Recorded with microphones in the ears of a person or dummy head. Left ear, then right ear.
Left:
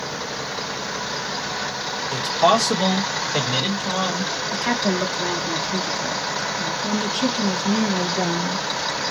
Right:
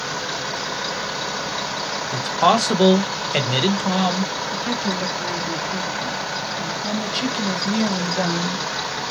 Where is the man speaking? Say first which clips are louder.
Even; 5° left (ahead or behind), 0.8 m; by 4.3 s 75° right (ahead or behind), 1.4 m.